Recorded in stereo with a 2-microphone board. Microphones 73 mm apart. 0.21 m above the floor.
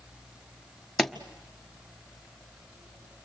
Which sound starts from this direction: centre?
A pop, at 1.0 s.